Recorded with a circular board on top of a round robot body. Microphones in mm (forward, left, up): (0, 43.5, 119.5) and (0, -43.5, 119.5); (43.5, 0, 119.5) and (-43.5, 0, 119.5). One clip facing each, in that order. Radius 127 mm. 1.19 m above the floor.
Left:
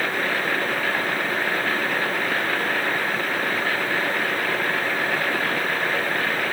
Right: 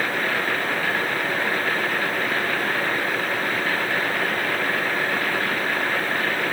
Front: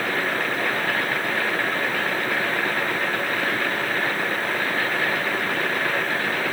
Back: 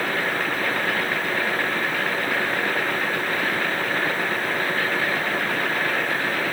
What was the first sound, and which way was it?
Only background noise.